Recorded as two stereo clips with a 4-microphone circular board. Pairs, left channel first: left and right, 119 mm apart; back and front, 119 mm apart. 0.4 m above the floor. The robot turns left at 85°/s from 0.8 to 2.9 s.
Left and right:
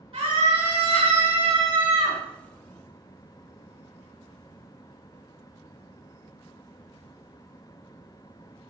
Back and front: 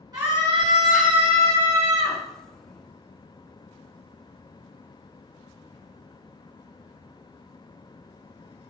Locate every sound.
0.1 s a scream: 55° right, 4.5 m; by 2.2 s 175° right, 4.5 m